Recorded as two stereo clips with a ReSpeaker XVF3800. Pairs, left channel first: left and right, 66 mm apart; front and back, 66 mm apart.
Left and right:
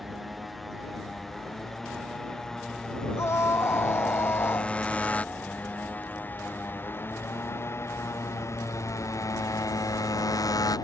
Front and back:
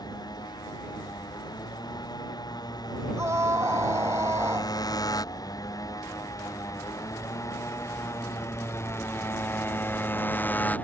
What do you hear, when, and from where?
0.0 s a motorcycle: straight ahead; by 10.8 s 65° left
3.2 s a scream: 135° left